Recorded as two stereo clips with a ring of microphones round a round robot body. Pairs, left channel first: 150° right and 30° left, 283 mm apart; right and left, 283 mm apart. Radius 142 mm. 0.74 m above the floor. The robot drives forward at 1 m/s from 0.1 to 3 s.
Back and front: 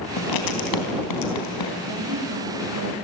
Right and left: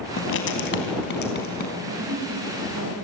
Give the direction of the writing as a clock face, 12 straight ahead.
5 o'clock.